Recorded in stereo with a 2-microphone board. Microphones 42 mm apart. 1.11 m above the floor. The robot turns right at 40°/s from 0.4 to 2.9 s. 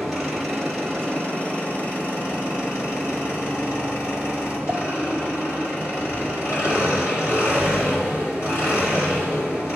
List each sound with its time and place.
0.0 s an engine running: straight ahead, 3 m; by 9.8 s 100° left, 3 m